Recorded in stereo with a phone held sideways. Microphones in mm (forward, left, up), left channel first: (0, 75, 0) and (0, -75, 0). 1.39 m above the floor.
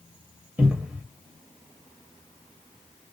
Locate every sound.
0.6 s a cupboard door: 10° right (ahead or behind), 0.8 m